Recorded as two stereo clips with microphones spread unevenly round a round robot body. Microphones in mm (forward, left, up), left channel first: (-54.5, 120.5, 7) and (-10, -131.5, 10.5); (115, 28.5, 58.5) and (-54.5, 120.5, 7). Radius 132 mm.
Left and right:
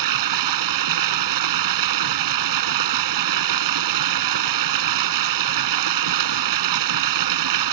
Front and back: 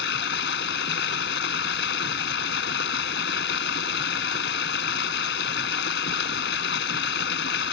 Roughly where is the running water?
Right.